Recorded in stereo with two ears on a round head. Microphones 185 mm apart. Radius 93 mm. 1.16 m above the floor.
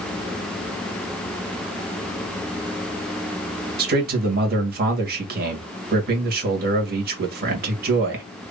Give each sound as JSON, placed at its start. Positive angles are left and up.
{"t": 3.8, "sound": "a man speaking", "side_deg": -50, "distance_m": 1.6}